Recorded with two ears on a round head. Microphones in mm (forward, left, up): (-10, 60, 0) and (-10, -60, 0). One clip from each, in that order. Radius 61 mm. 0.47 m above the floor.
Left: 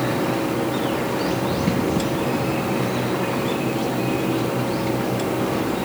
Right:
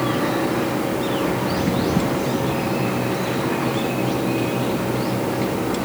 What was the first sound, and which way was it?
Only background noise.